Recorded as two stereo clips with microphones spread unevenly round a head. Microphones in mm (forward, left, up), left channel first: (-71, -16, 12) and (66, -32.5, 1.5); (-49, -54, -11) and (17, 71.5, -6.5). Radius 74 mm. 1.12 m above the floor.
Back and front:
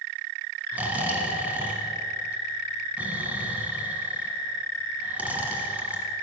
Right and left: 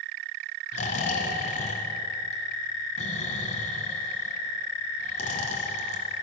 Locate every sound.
0.7 s snoring: 85° right, 1.6 m